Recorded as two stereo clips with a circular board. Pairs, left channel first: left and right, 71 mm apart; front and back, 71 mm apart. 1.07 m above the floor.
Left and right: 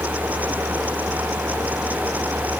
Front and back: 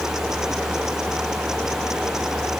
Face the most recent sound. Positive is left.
No sound to turn to.